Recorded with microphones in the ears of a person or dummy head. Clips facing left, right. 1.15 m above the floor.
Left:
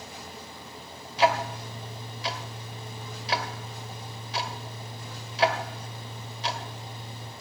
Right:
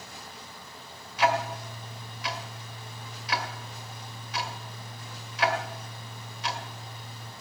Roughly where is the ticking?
Left.